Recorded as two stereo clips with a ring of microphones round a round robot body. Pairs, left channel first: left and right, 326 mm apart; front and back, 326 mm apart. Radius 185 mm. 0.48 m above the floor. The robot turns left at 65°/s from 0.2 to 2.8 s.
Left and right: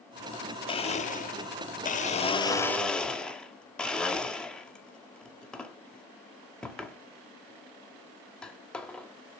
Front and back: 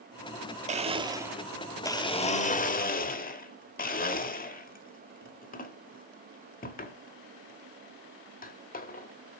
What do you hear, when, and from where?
0.7 s a blender: 145° left, 1.2 m; by 9.4 s 5° left, 1.2 m